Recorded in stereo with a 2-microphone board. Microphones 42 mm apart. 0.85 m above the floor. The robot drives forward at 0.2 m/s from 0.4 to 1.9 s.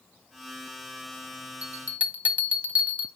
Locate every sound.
1.6 s a bell: 35° right (ahead or behind), 0.8 m